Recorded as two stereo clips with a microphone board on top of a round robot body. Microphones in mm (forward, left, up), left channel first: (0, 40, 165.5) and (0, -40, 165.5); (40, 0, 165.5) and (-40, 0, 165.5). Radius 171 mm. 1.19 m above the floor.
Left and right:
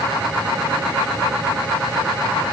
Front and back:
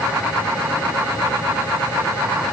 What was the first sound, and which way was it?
Only background noise.